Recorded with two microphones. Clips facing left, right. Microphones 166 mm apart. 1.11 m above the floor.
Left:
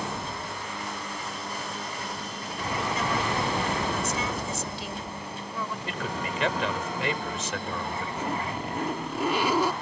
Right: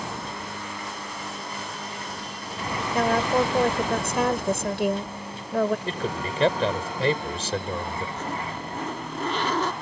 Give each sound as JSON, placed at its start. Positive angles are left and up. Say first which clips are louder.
{"t": 2.9, "sound": "a woman speaking", "louder": "right 10 dB", "side_deg": -65}
{"t": 5.9, "sound": "a man speaking", "louder": "right 3 dB", "side_deg": -35}
{"t": 8.2, "sound": "a zipper", "louder": "left 1 dB", "side_deg": 10}